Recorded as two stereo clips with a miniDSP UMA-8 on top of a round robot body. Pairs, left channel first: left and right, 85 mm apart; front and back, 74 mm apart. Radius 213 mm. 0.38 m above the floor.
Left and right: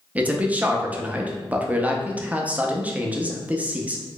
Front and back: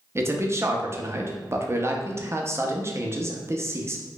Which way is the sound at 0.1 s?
155° right.